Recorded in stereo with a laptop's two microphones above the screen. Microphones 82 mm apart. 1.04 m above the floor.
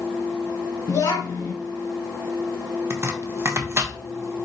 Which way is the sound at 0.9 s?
45° left (ahead or behind).